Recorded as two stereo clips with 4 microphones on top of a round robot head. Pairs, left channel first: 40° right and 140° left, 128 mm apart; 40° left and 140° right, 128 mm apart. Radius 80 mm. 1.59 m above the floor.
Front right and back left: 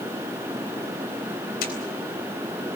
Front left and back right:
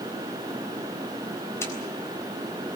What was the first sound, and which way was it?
A camera shutter, 30° right.